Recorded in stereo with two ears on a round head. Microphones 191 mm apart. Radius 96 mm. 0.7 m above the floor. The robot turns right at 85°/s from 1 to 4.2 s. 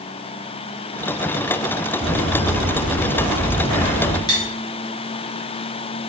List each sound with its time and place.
2.0 s footsteps: 10° right (ahead or behind), 1.8 m; by 4.2 s 60° left (ahead or behind), 1.2 m
4.3 s cutlery clinking: 20° left (ahead or behind), 0.7 m